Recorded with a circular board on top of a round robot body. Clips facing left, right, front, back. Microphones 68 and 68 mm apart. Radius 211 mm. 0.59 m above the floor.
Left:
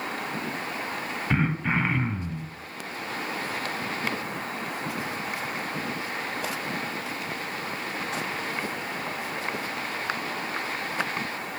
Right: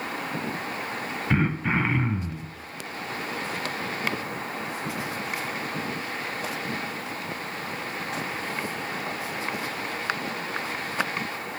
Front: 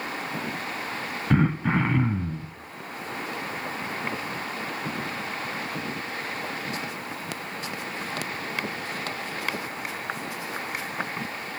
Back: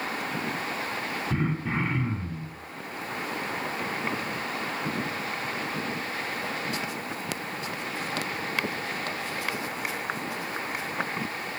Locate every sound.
1.3 s throat clearing: straight ahead, 0.8 m